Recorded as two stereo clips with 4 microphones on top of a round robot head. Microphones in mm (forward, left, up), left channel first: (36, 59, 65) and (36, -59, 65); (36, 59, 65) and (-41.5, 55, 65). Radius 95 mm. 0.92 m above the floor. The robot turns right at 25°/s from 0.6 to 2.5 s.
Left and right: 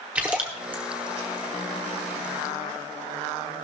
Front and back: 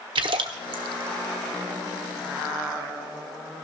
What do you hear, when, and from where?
0.1 s a splash: 170° right, 0.7 m; by 0.8 s 165° right, 0.7 m